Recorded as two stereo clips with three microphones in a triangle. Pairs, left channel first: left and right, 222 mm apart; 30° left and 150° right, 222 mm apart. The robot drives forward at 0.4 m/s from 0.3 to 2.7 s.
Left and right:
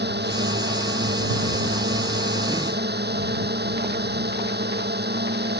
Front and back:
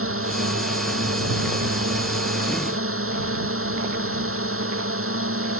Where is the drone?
130° right.